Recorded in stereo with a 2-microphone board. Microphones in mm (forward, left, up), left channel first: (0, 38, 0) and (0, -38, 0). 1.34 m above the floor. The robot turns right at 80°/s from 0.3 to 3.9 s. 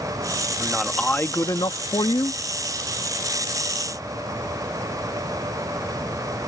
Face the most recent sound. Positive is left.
turn(degrees=-115)